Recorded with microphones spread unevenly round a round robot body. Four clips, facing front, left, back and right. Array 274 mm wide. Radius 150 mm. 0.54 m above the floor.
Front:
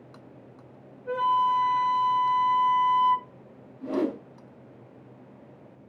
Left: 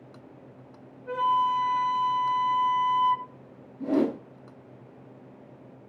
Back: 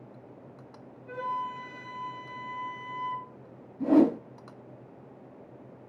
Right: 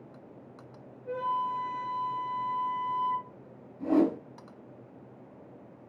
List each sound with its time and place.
1.1 s a flute: 80° left, 3.5 m
3.8 s a whoosh: 175° right, 4 m